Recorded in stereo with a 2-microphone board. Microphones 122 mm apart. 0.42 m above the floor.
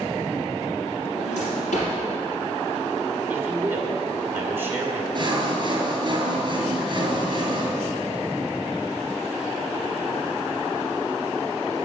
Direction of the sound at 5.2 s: 40° right (ahead or behind).